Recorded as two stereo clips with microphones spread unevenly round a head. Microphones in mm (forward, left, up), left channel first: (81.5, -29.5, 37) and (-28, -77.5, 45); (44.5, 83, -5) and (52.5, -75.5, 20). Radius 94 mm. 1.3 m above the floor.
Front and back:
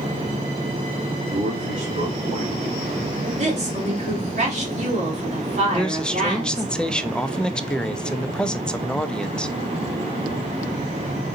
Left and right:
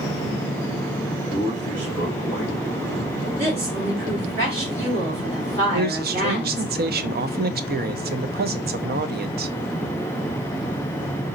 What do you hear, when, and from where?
1.3 s a man speaking: 175° right, 2.5 m; by 2.8 s 135° right, 1.3 m
3.2 s a woman speaking: 140° right, 3.5 m
5.7 s a man speaking: 60° right, 0.7 m